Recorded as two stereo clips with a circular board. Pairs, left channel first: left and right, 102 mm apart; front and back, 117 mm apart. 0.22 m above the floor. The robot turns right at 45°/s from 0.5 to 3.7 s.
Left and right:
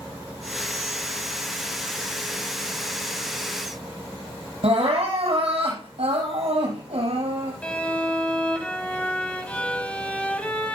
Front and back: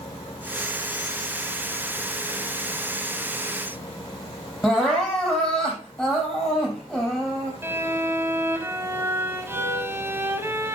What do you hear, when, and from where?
4.6 s crying: 90° right, 4.5 m
7.6 s a violin: 150° left, 1.4 m